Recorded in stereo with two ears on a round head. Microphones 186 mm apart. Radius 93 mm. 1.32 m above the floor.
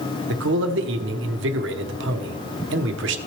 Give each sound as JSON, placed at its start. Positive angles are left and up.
{"t": 0.3, "sound": "a man speaking", "side_deg": -60, "distance_m": 1.0}